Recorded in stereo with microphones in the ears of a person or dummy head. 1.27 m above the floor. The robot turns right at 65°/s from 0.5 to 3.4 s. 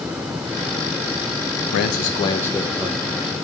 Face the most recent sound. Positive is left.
turn(degrees=-130)